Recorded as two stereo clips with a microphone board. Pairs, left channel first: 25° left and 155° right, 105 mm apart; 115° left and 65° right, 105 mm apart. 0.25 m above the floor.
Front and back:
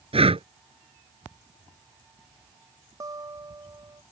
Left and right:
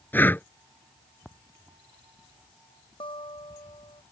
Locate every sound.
0.1 s breathing: 175° right
3.0 s a guitar: 145° left